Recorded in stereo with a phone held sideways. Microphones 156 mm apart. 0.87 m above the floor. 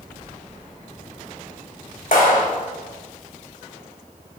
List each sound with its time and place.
2.1 s a clap: 70° left (ahead or behind), 3 m